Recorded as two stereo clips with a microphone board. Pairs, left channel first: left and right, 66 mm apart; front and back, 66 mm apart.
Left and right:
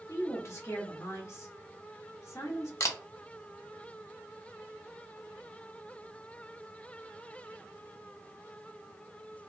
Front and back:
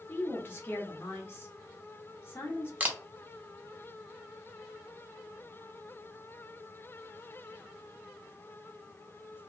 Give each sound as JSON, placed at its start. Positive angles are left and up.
{"t": 0.1, "sound": "a woman speaking", "azimuth_deg": 55, "distance_m": 1.0}
{"t": 2.8, "sound": "a camera shutter", "azimuth_deg": 120, "distance_m": 0.6}